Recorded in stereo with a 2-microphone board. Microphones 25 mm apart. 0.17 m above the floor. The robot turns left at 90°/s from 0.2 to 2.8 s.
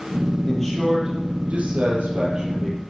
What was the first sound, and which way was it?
A man speaking, 25° left.